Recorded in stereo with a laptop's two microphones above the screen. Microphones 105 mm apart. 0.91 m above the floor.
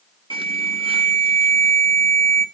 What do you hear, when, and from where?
0.3 s an alarm: 55° right (ahead or behind), 1.3 m